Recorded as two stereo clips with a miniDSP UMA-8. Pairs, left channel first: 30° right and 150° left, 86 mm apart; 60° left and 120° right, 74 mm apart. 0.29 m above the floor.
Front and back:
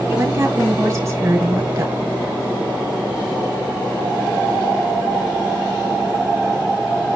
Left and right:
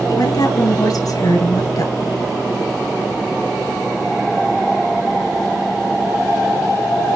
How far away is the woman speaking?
About 5 m.